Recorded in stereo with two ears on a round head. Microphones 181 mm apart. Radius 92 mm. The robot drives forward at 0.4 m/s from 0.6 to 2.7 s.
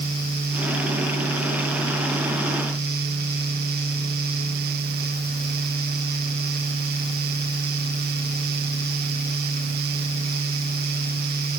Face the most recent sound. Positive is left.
No sound to turn to.